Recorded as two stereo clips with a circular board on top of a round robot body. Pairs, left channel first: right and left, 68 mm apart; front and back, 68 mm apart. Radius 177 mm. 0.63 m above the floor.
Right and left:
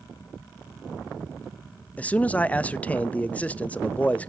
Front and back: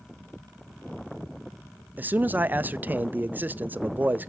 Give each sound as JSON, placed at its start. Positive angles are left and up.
{"t": 2.0, "sound": "a man speaking", "azimuth_deg": -145, "distance_m": 0.6}